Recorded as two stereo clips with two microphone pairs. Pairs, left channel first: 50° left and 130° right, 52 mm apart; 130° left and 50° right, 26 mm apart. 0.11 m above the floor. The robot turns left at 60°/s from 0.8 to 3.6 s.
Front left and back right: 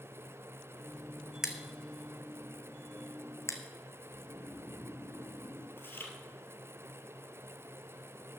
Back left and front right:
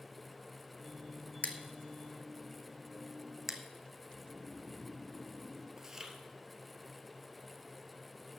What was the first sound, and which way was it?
Scissors, 150° left.